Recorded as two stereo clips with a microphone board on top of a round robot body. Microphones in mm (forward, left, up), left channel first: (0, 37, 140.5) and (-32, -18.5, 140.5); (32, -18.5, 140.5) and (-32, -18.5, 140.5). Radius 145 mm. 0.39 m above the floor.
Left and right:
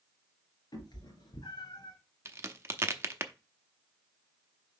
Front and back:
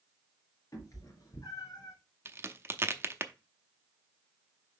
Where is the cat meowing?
45° left, 2.5 m; by 1.9 s 40° left, 1.2 m.